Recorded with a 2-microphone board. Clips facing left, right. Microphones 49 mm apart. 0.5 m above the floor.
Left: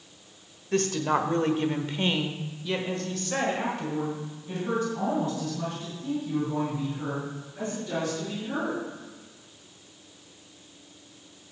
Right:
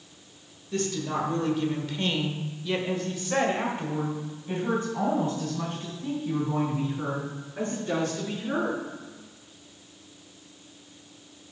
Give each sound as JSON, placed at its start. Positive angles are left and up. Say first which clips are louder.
{"t": 0.7, "sound": "a woman speaking", "louder": "left 4 dB", "side_deg": 65, "distance_m": 1.5}